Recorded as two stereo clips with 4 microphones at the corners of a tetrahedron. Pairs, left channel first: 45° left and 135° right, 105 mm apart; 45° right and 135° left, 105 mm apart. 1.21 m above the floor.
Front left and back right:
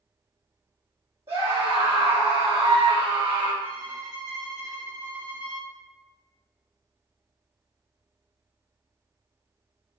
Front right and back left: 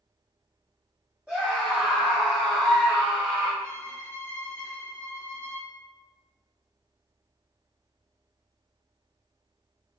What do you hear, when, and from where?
1.3 s a scream: 145° right, 1.5 m
3.6 s a violin: 110° right, 1.5 m